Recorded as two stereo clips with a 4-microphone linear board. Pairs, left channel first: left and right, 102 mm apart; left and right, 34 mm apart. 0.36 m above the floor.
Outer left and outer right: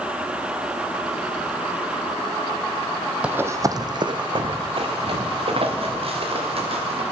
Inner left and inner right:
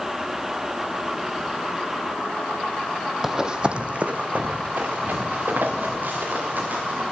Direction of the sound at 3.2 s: 10° right (ahead or behind).